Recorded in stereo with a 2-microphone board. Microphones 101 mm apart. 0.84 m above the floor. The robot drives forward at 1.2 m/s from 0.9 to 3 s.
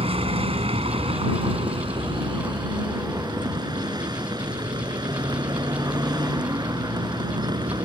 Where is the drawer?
No drawer in this recording.